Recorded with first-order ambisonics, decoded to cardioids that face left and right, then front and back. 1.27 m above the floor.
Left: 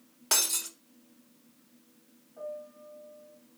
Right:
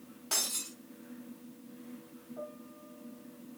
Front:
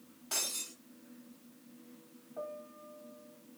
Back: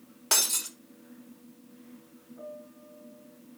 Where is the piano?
15° right, 3.5 m.